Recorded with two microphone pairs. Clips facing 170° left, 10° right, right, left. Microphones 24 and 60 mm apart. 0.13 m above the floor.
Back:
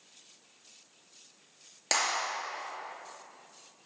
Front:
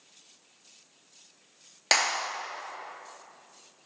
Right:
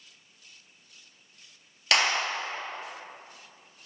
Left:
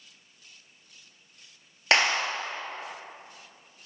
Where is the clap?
35° left, 1.7 m.